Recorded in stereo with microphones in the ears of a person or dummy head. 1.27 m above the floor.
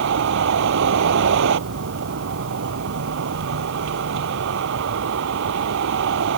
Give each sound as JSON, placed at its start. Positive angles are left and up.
{"t": 0.0, "sound": "a vehicle", "side_deg": -65}